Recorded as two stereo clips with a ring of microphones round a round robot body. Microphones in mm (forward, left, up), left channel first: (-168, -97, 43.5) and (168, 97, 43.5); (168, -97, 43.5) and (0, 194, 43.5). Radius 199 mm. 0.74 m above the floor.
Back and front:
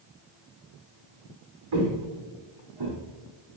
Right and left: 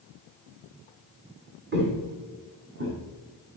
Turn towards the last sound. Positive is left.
turn(degrees=65)